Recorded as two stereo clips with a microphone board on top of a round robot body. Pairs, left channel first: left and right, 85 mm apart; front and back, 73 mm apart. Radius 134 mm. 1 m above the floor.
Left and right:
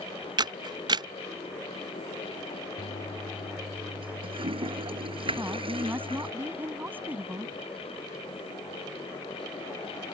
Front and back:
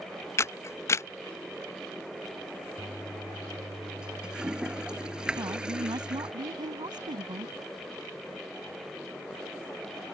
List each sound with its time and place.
0.4 s a camera shutter: 50° right
2.8 s a toilet flushing: 100° right
5.4 s a woman speaking: 160° right